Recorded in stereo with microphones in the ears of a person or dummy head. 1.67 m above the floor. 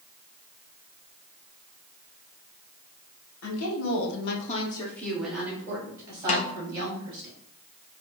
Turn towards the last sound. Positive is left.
turn(degrees=45)  # may be behind; listen again after turning